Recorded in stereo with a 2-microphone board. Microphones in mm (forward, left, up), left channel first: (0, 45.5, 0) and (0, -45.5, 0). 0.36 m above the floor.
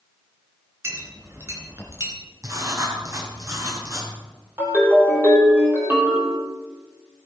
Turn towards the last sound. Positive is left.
turn(degrees=-25)  # may be behind; listen again after turning